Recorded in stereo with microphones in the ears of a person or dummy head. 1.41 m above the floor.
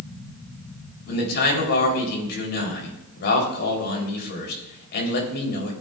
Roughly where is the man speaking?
Left.